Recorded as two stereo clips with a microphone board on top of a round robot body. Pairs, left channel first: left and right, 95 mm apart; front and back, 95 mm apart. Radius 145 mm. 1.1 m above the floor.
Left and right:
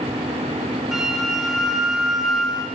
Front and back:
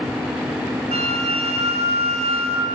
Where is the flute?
175° right, 1.9 m.